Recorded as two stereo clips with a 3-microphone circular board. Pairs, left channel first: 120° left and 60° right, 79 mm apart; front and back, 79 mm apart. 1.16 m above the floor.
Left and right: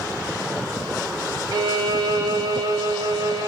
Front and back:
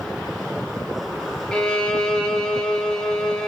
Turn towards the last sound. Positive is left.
turn(degrees=-80)